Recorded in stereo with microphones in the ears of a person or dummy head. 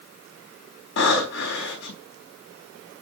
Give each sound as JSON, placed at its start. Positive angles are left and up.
{"t": 1.0, "sound": "breathing", "side_deg": 60, "distance_m": 4.5}